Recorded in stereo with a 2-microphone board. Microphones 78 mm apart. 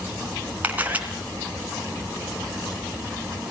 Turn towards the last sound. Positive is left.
turn(degrees=-20)  # may be behind; listen again after turning